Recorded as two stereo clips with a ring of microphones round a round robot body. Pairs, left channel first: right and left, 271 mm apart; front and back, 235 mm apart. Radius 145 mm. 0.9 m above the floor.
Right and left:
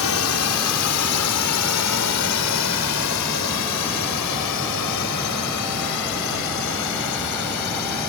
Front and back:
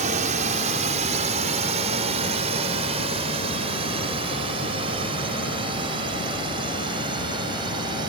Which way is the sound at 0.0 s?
120° right.